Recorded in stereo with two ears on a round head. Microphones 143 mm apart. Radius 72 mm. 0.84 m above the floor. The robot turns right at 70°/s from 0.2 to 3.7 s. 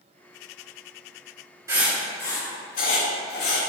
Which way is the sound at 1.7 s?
20° right (ahead or behind).